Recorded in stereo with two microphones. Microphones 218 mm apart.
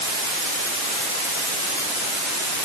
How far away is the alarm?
No alarm in this recording.